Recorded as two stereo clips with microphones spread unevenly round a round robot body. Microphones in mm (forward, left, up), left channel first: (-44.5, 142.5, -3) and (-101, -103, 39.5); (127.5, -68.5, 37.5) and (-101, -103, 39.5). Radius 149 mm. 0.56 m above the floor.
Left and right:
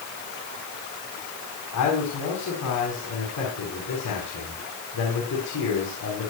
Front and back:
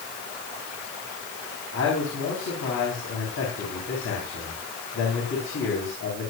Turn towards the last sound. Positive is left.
turn(degrees=50)